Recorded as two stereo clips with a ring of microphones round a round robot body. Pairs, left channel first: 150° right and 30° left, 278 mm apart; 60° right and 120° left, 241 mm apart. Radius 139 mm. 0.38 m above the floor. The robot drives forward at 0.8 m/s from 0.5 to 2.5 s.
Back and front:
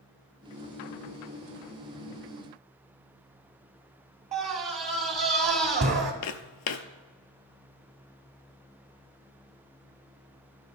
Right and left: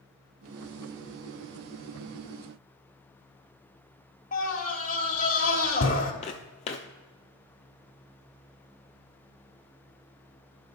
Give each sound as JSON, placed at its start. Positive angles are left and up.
{"t": 4.3, "sound": "a scream", "azimuth_deg": -15, "distance_m": 1.3}
{"t": 6.2, "sound": "footsteps", "azimuth_deg": -125, "distance_m": 0.6}